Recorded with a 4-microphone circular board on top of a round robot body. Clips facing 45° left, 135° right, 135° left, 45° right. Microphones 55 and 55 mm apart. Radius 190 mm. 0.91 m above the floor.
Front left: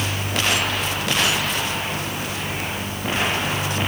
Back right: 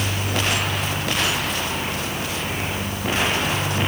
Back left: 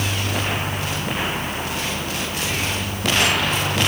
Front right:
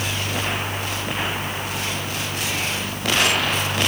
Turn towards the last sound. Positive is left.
No sound to turn to.